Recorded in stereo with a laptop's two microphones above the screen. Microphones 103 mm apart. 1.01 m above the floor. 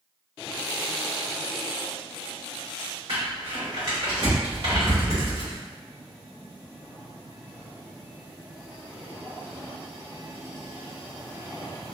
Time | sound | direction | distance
3.1 | crumpling | 75° right (ahead or behind) | 1.8 m